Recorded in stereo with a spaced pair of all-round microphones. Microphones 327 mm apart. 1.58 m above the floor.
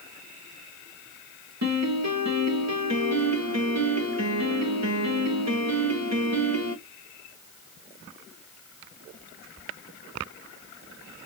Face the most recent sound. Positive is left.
turn(degrees=-55)  # may be behind; listen again after turning